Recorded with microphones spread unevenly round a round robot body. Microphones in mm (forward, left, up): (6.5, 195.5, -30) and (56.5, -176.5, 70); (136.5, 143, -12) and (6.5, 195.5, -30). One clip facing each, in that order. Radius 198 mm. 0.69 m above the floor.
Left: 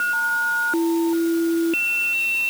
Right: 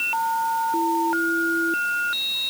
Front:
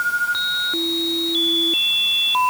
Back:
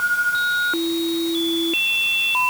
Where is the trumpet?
No trumpet in this recording.